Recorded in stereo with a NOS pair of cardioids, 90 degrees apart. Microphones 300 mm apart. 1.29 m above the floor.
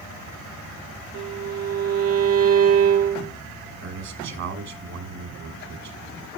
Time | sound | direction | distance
1.1 | a violin | 55° right | 4.5 m
3.8 | a man speaking | 55° right | 3.5 m